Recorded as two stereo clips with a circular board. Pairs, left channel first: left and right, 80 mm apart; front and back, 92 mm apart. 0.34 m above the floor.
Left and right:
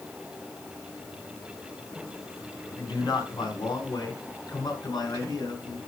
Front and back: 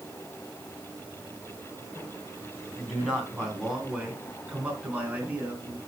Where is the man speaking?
95° left, 3.5 m; by 5.8 s 115° left, 5 m.